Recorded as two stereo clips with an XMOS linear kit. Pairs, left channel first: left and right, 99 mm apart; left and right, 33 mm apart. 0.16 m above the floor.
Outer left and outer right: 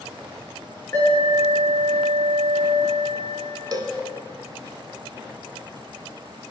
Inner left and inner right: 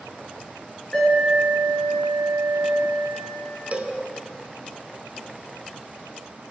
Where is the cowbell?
45° right (ahead or behind), 0.7 m.